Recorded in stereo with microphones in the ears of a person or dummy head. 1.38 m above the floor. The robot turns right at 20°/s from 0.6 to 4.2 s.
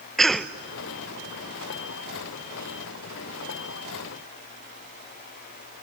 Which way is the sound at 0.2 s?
Centre (ahead or behind).